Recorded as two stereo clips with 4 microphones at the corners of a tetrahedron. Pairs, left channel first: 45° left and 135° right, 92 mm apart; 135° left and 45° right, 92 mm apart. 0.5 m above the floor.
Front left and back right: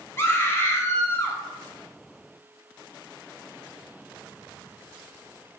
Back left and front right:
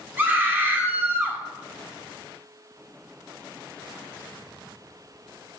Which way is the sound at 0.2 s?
5° left.